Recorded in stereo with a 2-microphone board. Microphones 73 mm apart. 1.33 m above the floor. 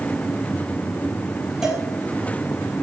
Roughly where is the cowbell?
Centre.